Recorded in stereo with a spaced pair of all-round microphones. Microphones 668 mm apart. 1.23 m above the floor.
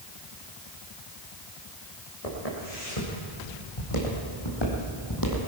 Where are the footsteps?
65° left (ahead or behind), 6 m; by 5.5 s 25° left (ahead or behind), 3 m.